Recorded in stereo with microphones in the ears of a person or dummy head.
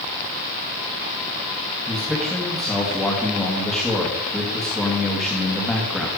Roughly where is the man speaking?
Centre.